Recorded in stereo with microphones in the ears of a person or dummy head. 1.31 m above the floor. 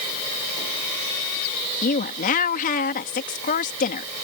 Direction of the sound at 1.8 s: 45° left (ahead or behind).